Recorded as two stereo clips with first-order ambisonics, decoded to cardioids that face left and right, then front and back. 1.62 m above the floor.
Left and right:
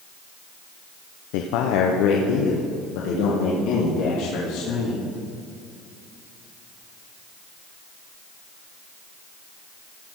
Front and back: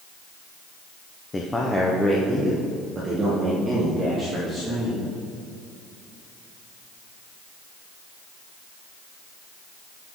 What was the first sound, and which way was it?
A man speaking, 75° left.